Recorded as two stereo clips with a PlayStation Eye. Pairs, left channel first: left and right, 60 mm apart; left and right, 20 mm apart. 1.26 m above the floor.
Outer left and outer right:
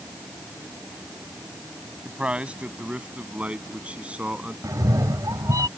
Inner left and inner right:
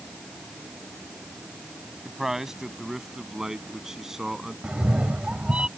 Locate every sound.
2.0 s a man speaking: 20° right (ahead or behind)
4.6 s a cat meowing: 70° right (ahead or behind)